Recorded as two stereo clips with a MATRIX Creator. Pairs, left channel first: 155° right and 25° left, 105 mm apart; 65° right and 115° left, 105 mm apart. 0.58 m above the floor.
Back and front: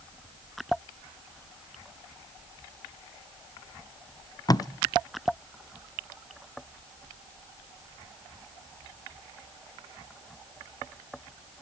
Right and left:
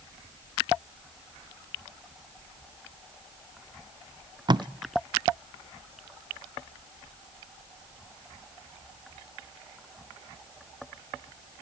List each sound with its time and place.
4.5 s tape being pulled: 155° left, 0.5 m